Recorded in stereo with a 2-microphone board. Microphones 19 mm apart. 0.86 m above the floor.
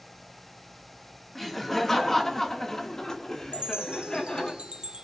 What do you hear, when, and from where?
1.4 s laughter: 10° left (ahead or behind), 2 m; by 4.5 s 45° left (ahead or behind), 3 m
3.5 s a chime: 60° right (ahead or behind), 1.1 m